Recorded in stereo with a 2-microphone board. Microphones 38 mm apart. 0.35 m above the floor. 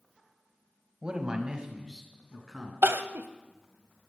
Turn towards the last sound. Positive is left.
turn(degrees=-70)  # may be behind; listen again after turning